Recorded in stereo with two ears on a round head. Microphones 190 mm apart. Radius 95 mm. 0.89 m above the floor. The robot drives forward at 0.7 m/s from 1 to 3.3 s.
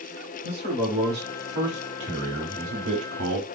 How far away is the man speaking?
About 3 m.